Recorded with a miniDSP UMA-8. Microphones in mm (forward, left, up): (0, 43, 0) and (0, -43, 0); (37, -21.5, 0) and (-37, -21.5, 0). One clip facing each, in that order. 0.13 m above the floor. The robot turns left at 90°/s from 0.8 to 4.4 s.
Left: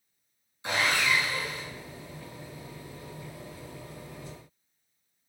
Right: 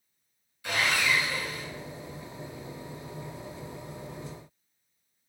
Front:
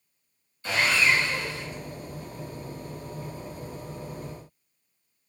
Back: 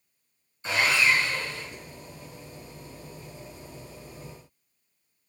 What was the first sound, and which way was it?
Sawing, 135° left.